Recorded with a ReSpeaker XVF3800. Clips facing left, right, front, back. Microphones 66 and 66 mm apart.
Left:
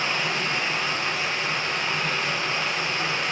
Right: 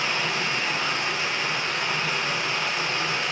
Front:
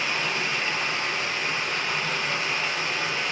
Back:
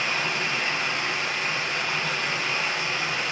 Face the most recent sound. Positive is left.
turn(degrees=120)